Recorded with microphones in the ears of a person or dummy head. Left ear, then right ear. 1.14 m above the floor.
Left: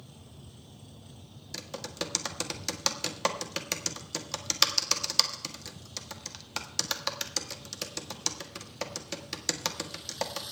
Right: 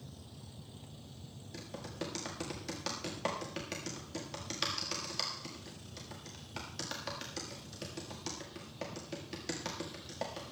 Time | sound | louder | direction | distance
1.5 | typing on a keyboard | left 7 dB | 40° left (ahead or behind) | 1.6 m